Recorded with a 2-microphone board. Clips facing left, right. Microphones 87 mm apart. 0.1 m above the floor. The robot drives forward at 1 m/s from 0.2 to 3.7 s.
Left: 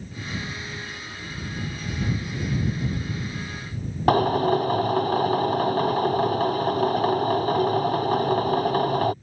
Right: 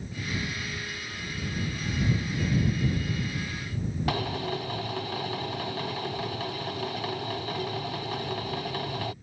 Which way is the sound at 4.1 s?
45° left (ahead or behind).